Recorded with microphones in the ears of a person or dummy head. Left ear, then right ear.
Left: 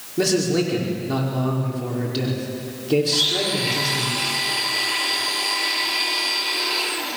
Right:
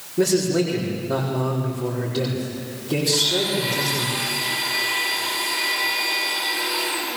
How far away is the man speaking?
About 5 m.